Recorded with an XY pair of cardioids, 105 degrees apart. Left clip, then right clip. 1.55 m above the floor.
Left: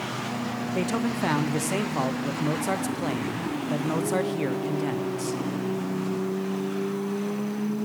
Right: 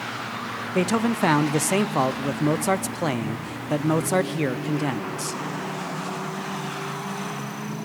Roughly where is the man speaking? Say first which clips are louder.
Right 6 dB; ahead right.